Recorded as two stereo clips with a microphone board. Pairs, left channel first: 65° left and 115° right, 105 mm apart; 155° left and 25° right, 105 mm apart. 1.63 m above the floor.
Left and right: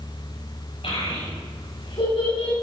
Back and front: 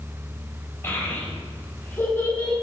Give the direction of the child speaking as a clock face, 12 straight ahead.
9 o'clock.